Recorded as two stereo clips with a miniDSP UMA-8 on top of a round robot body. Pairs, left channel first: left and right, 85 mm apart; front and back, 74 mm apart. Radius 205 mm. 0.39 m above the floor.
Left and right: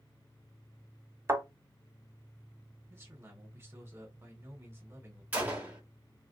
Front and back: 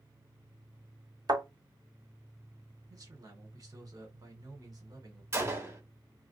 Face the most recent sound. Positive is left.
turn(degrees=-155)